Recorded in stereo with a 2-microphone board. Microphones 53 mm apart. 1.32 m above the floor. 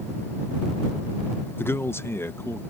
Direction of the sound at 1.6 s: 45° left (ahead or behind).